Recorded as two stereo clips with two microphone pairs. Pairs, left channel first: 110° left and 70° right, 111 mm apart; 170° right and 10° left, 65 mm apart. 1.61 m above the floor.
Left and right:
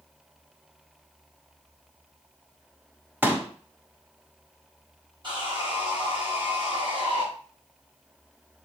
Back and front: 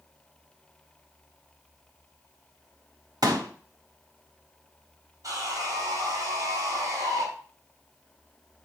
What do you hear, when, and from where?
3.2 s a pop: 5° left, 1.5 m
5.2 s sawing: 30° right, 6 m